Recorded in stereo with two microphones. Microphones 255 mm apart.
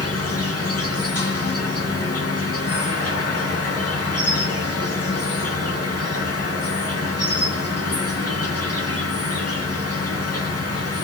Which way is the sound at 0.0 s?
80° left.